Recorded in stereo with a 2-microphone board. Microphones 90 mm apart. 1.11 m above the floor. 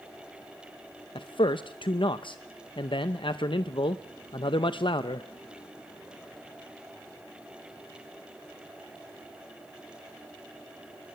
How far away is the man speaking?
About 0.7 m.